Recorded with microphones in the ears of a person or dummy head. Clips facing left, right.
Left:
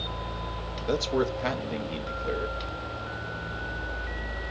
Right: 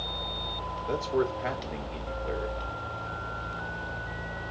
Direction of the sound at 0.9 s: 45° left (ahead or behind).